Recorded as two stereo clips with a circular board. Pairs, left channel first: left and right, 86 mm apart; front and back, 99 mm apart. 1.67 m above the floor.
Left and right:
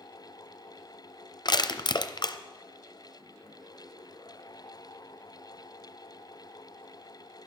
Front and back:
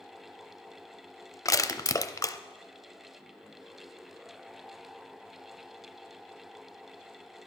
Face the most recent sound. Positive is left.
turn(degrees=60)